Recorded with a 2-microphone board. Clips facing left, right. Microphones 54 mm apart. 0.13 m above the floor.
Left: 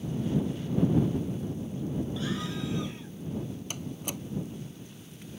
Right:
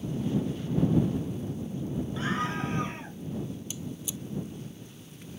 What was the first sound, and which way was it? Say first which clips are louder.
A scream: right 3 dB; 40° right (ahead or behind).